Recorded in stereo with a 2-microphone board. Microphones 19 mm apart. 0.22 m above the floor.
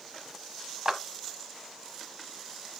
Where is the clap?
30° right (ahead or behind), 1.1 m.